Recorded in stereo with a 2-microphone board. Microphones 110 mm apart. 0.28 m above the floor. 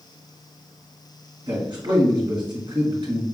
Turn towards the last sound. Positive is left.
turn(degrees=-45)  # may be behind; listen again after turning